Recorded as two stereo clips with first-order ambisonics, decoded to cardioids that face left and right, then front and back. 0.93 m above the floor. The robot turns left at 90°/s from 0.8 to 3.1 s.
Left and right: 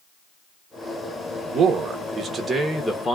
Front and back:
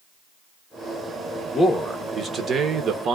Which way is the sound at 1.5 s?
60° right.